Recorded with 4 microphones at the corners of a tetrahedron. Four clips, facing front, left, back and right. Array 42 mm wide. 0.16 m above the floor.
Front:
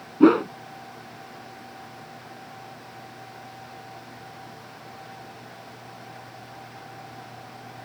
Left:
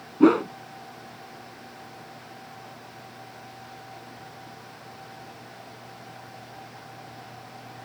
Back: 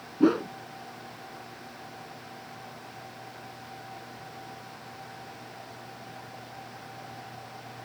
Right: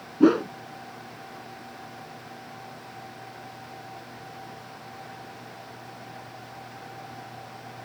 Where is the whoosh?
25° left.